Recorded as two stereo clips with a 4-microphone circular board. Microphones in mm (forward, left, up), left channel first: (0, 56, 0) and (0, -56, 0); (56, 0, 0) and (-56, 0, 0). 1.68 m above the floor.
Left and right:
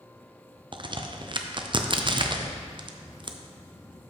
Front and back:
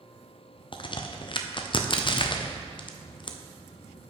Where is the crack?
45° right, 0.6 m.